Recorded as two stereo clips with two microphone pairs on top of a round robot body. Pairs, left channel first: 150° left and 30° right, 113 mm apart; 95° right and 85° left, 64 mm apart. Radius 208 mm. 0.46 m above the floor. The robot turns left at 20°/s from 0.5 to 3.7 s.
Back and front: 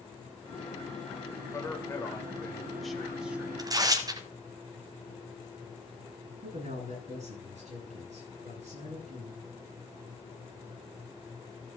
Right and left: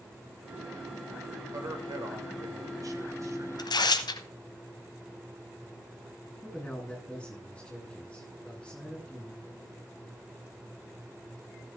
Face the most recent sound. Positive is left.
turn(degrees=-20)